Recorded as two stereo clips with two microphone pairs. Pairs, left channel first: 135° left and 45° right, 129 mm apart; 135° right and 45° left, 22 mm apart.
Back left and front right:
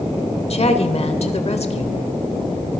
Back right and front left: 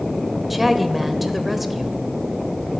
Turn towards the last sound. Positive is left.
turn(degrees=130)